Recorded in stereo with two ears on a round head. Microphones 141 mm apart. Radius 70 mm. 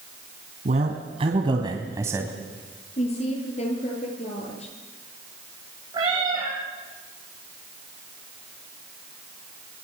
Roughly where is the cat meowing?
Right.